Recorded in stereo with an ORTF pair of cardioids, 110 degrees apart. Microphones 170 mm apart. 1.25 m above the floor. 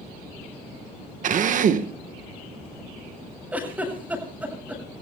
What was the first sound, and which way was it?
A drill, 50° right.